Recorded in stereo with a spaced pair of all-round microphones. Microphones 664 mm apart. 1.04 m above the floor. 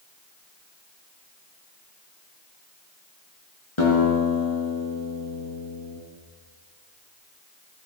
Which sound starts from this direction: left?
A guitar, at 3.8 s.